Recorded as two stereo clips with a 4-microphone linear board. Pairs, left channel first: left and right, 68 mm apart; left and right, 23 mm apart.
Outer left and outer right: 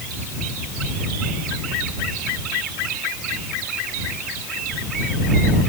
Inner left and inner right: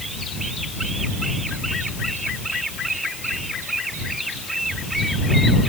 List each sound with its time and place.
Only background noise.